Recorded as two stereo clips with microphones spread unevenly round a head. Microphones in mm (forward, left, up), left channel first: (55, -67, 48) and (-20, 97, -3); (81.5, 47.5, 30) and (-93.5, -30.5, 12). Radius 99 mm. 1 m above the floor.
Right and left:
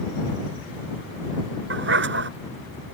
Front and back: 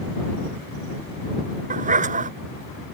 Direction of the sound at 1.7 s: 150° left.